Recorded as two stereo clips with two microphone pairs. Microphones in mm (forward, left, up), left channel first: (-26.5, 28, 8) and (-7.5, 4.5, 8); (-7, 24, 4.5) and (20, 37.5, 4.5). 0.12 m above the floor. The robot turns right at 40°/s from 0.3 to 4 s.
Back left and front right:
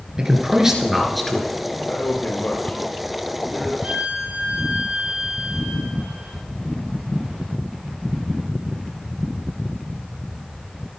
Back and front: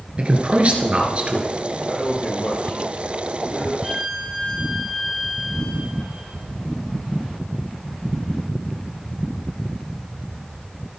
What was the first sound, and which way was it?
A man speaking, 10° left.